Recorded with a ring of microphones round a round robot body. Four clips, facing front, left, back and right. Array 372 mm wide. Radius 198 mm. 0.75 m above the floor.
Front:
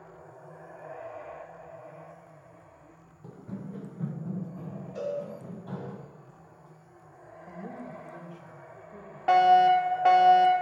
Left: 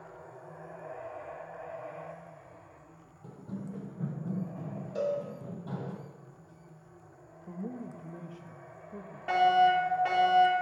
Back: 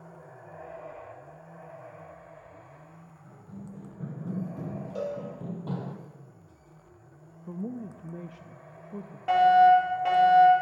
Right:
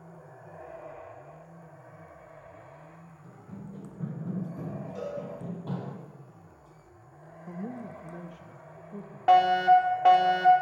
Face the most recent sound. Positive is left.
turn(degrees=-65)